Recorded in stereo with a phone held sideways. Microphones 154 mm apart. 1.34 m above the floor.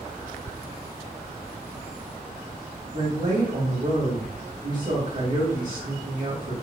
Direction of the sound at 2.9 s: 60° right (ahead or behind).